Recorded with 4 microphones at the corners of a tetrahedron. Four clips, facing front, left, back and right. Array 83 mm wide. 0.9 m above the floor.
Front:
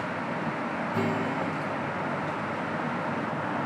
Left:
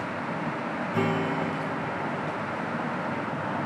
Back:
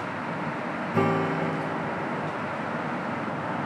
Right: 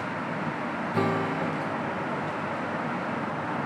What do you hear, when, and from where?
0.9 s a guitar: 160° right, 0.6 m